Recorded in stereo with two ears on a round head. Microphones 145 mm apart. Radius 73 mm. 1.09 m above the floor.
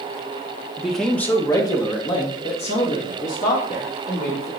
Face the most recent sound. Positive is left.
turn(degrees=55)  # may be behind; listen again after turning